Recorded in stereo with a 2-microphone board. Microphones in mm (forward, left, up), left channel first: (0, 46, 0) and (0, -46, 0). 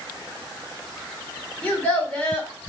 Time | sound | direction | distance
1.6 | a child speaking | 15° left (ahead or behind) | 2.5 m